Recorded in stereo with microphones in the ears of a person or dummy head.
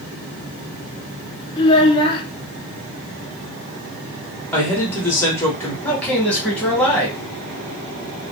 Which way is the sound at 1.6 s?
25° left (ahead or behind).